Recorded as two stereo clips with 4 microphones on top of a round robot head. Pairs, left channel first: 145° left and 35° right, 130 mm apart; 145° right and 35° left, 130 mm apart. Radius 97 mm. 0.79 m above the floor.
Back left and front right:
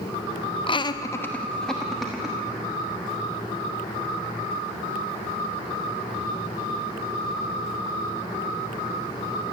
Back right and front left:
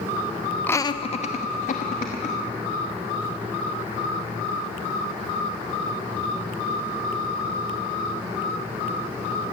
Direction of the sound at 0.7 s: 150° left.